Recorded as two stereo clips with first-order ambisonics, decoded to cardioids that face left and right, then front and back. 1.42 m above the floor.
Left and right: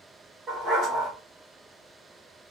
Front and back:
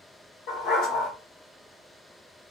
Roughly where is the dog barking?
Ahead right.